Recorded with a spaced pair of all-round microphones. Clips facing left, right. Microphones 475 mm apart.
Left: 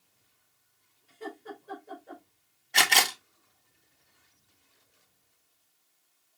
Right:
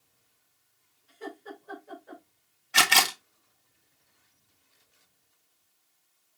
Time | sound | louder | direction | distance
1.1 | laughter | even | 50° left (ahead or behind) | 3.5 m
2.7 | a camera shutter | right 1 dB | 25° right (ahead or behind) | 0.5 m